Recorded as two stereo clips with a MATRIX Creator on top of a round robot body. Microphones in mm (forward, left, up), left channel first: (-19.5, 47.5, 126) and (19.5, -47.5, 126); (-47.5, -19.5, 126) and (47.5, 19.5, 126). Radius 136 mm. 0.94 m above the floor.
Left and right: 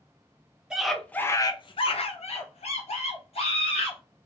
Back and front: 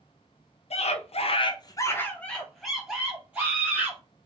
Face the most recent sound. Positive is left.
turn(degrees=95)